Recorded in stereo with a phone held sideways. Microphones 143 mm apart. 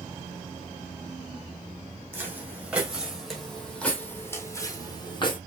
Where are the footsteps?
15° right (ahead or behind), 3 m; by 5.4 s 35° left (ahead or behind), 2 m.